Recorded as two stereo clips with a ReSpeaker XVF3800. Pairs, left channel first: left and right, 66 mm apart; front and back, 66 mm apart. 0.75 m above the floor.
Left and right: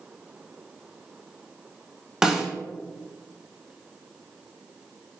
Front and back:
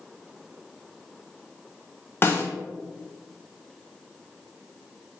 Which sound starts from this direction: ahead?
A snare drum, at 2.2 s.